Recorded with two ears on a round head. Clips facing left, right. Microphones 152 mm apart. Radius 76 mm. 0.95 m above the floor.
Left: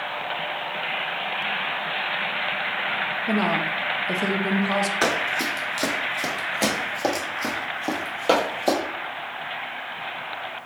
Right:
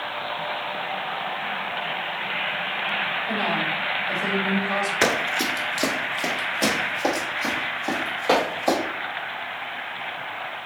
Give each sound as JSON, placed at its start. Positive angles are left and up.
{"t": 3.3, "sound": "a woman speaking", "side_deg": 65, "distance_m": 0.8}
{"t": 5.0, "sound": "running footsteps", "side_deg": -15, "distance_m": 0.9}